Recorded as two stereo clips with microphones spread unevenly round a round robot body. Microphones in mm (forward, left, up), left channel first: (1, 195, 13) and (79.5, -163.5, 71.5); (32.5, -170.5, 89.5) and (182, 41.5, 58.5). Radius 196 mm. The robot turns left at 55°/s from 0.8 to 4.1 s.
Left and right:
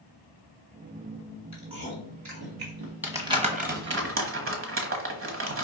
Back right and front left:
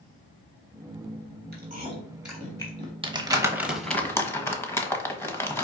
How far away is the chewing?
About 2 m.